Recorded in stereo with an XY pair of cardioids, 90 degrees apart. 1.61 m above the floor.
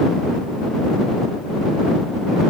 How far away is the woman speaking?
I don't hear a woman speaking.